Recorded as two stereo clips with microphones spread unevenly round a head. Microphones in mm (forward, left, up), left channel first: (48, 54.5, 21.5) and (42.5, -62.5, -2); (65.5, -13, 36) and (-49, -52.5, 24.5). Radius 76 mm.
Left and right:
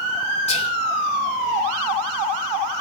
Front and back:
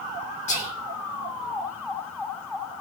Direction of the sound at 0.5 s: 55° left.